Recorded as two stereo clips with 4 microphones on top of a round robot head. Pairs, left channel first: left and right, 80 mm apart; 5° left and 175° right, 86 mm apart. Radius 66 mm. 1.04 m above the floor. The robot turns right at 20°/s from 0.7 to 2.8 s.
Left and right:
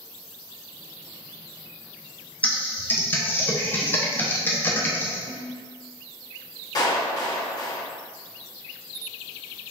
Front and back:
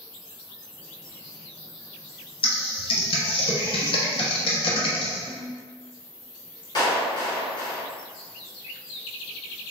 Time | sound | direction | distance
2.4 | typing on a keyboard | 15° left | 0.8 m
5.3 | a ringtone | 90° right | 0.9 m
6.8 | a clap | 45° left | 1.3 m